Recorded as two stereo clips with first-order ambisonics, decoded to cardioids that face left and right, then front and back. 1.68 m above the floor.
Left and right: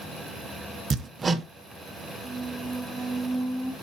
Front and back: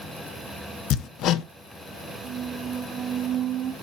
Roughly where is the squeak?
Behind right.